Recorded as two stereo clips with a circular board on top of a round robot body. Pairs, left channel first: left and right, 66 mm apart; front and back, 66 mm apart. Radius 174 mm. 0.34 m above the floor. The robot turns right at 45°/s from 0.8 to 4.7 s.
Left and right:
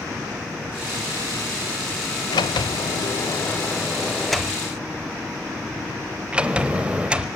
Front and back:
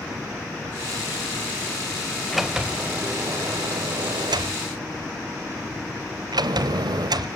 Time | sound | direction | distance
2.3 | a sliding door | 90° left | 0.5 m